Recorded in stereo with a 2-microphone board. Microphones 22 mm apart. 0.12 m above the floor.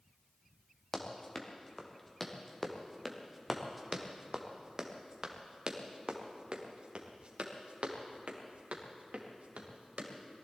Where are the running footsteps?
20° left (ahead or behind), 3 m; by 10.1 s 70° right (ahead or behind), 4.5 m.